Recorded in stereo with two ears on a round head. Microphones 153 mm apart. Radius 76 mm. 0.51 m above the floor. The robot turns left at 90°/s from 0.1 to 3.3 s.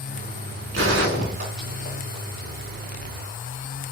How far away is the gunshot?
About 4.5 m.